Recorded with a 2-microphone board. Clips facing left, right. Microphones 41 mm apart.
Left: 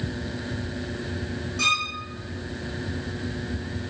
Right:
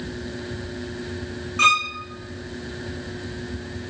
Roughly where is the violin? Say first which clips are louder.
Right 6 dB; right.